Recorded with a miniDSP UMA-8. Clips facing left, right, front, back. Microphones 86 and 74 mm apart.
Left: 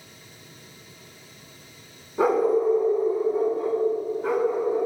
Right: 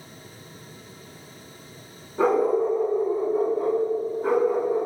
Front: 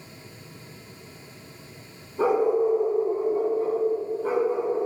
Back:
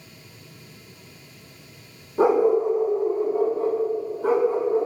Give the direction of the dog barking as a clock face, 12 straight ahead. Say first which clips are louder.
Even, back 3 dB; 6 o'clock.